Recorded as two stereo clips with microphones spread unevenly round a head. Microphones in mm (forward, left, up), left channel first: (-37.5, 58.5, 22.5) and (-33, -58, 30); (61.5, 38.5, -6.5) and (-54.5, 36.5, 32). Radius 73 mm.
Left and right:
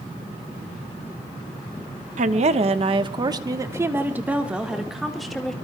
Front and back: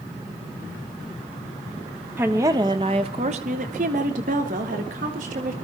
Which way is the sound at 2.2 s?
105° right.